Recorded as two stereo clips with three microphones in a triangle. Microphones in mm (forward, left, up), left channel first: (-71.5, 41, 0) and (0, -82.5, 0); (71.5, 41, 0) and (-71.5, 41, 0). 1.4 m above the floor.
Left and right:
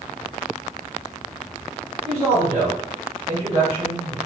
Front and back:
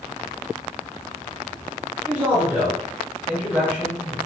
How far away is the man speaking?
About 1.0 m.